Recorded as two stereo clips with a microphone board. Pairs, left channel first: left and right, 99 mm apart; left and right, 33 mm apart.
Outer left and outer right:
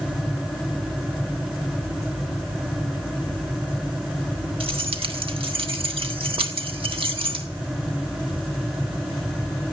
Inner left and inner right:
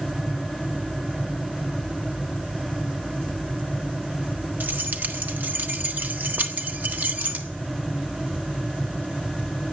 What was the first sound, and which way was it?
Keys jangling, 65° right (ahead or behind).